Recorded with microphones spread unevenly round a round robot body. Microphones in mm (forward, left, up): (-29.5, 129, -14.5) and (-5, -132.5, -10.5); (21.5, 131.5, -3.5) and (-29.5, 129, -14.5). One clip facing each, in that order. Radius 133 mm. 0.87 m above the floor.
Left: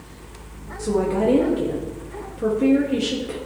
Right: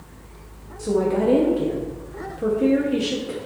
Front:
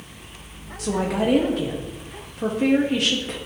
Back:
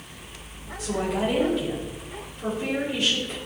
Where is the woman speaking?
15° left, 1.2 m.